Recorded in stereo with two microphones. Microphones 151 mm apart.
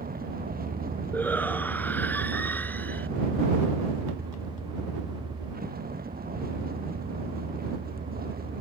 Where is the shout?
10° left (ahead or behind).